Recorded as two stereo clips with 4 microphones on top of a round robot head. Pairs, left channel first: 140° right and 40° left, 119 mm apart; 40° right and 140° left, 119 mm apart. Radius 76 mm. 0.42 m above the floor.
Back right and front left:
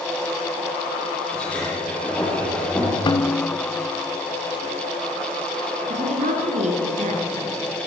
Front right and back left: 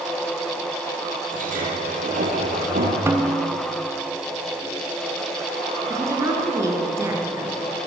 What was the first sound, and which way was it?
A sliding door, 140° left.